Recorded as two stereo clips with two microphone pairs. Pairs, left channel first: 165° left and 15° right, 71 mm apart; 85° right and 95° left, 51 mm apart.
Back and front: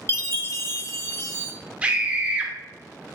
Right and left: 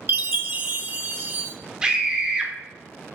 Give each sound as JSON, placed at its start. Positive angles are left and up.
{"t": 0.1, "sound": "a chime", "azimuth_deg": 135, "distance_m": 0.6}
{"t": 1.8, "sound": "a scream", "azimuth_deg": 40, "distance_m": 0.8}